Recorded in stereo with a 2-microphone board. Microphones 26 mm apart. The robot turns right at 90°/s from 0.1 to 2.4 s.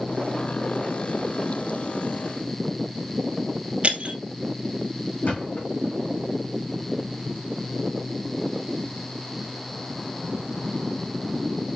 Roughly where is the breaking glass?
Right.